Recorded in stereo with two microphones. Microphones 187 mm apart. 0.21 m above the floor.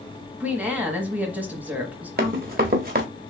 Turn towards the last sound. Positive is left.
turn(degrees=-50)  # may be behind; listen again after turning